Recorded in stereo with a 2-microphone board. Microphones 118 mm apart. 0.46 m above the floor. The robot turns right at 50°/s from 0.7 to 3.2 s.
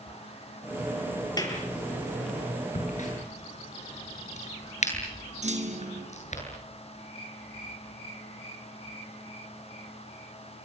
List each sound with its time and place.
1.4 s a clap: 35° left (ahead or behind), 7 m; by 1.6 s 25° left (ahead or behind), 7 m
2.8 s a crack: 80° left, 9 m; by 6.4 s 70° left (ahead or behind), 9 m
5.4 s a clunk: 70° right (ahead or behind), 3.5 m